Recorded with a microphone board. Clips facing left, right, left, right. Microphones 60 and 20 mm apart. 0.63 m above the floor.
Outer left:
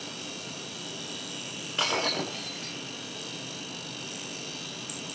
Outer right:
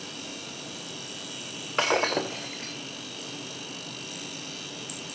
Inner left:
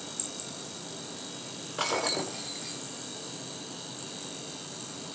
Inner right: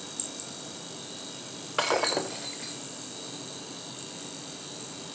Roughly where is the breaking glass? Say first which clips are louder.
Outer right 4 dB, inner right 3 dB; right.